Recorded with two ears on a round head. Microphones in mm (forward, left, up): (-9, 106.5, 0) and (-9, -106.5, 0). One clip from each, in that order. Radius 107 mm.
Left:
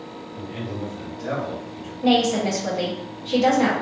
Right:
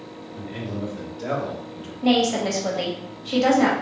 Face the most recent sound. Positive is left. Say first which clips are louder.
# left 1 dB
turn(degrees=-15)  # may be behind; listen again after turning